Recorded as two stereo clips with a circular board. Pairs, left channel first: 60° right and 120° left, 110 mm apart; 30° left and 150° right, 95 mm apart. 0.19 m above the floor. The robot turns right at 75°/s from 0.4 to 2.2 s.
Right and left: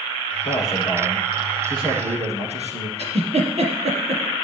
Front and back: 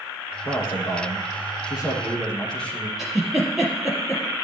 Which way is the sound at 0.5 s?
20° right.